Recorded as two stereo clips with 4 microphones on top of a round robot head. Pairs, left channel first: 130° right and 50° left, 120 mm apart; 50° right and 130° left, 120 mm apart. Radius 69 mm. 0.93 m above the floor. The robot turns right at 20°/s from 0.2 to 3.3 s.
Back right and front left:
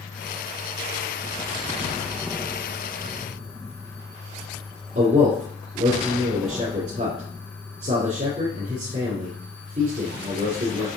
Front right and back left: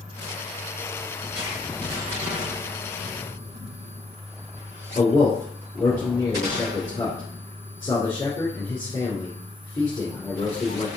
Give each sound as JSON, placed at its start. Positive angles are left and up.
{"t": 5.0, "sound": "a man speaking", "azimuth_deg": 20, "distance_m": 2.5}